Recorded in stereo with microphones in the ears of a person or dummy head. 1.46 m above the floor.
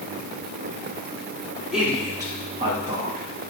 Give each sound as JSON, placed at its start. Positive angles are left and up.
{"t": 1.7, "sound": "a man speaking", "side_deg": -5, "distance_m": 1.5}